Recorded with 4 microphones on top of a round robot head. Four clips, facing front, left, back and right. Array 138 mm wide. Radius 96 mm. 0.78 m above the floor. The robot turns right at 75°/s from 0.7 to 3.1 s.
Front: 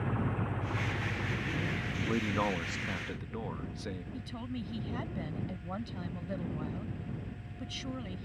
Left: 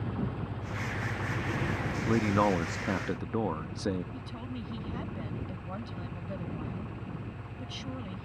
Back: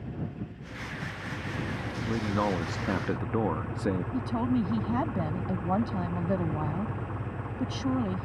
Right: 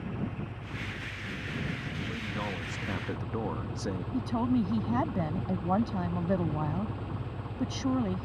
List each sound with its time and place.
0.0 s an engine running: 20° left; by 8.3 s 160° right
2.1 s a man speaking: 85° left; by 4.0 s 160° left
4.1 s a woman speaking: 135° right